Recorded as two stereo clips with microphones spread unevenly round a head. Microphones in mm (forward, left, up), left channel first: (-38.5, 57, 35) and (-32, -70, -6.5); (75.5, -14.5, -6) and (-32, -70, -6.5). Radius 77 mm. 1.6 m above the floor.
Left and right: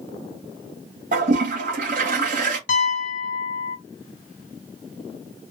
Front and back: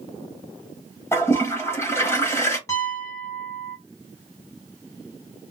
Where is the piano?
100° left, 0.5 m.